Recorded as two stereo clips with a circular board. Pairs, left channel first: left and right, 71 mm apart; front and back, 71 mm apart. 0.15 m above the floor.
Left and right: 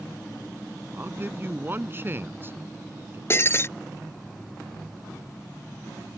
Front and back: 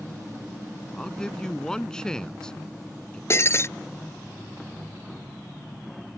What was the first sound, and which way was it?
A man speaking, 70° right.